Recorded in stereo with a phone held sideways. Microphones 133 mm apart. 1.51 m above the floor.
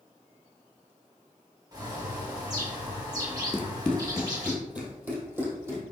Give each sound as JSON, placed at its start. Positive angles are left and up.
{"t": 1.7, "sound": "a bird", "side_deg": -30, "distance_m": 1.8}
{"t": 3.5, "sound": "running footsteps", "side_deg": 15, "distance_m": 1.7}